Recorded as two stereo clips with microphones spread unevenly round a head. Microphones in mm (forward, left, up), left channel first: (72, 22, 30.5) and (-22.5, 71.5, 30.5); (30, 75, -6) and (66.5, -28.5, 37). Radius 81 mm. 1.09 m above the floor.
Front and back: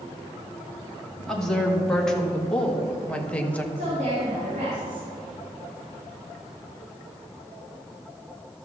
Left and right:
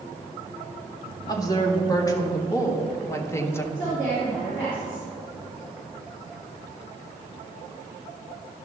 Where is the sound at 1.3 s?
55° left, 2.5 m; by 3.6 s 50° left, 1.0 m.